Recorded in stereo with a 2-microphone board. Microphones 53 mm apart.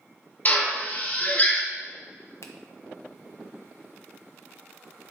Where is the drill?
35° left (ahead or behind), 1.1 m.